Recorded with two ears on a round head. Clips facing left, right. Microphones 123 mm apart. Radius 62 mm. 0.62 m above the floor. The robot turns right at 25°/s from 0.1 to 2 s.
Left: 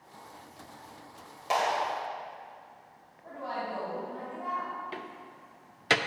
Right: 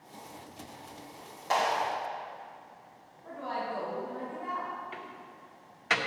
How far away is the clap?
About 2 m.